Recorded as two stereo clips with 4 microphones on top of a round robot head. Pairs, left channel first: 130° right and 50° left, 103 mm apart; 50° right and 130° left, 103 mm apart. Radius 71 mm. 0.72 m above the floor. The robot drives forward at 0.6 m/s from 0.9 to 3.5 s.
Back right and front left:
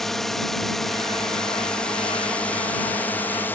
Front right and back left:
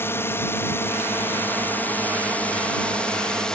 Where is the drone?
50° right; by 3.6 s 115° right.